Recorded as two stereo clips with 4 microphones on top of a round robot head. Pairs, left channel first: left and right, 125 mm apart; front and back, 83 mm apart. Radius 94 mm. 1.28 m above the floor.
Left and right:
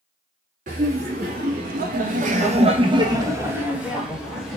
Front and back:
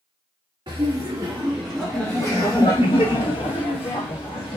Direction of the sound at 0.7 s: 120° right.